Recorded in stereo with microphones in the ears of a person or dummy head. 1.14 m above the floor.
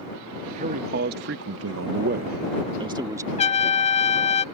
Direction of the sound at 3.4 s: 35° left (ahead or behind).